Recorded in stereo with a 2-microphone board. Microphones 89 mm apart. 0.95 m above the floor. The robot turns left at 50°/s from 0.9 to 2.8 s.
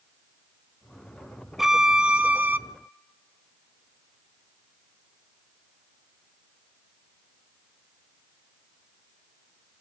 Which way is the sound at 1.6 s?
5° right (ahead or behind).